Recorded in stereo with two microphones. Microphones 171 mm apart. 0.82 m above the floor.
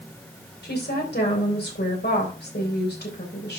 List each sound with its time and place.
0.6 s a woman speaking: 75° left (ahead or behind), 3.5 m